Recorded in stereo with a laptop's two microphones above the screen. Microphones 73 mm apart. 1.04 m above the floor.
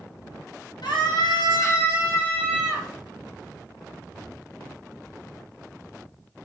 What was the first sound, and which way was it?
A scream, 75° left (ahead or behind).